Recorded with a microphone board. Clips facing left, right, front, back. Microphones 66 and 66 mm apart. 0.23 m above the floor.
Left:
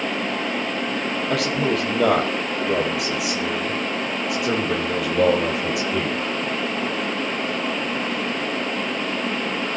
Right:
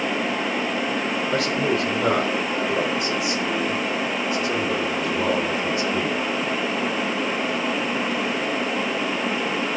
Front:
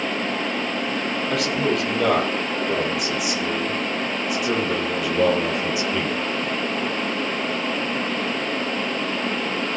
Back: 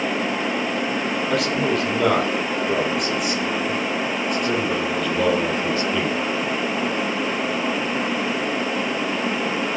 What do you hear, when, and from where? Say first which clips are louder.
1.3 s a man speaking: left 1 dB, back 1 dB; 90° left, 9.5 m; by 6.2 s 75° left, 7.5 m